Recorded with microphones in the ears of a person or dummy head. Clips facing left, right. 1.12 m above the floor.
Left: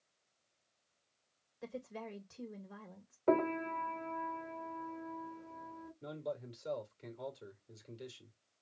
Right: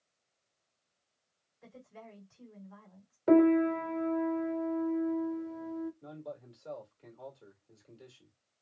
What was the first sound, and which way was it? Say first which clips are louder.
A woman speaking: left 7 dB; 65° left (ahead or behind).